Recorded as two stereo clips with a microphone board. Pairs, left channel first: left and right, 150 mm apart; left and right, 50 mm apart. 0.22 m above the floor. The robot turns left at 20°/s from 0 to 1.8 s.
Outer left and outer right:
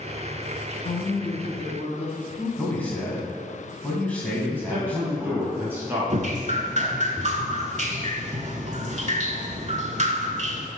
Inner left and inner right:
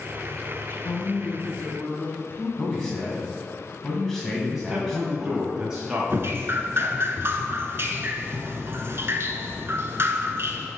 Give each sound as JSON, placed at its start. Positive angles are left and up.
{"t": 0.7, "sound": "a woman speaking", "side_deg": 40, "distance_m": 1.3}
{"t": 2.6, "sound": "a man speaking", "side_deg": 10, "distance_m": 1.9}
{"t": 4.5, "sound": "a man speaking", "side_deg": -15, "distance_m": 1.8}
{"t": 6.1, "sound": "dripping", "side_deg": -50, "distance_m": 0.6}